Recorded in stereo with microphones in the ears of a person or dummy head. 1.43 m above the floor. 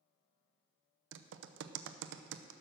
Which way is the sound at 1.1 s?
75° right (ahead or behind).